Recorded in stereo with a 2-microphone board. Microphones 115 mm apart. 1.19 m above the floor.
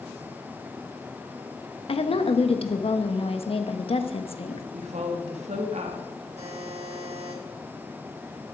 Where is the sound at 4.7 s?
80° right, 1.9 m.